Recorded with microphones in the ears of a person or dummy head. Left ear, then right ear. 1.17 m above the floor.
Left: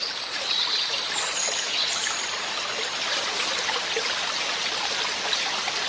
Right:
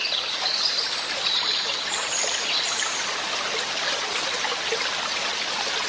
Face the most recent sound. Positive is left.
No sound to turn to.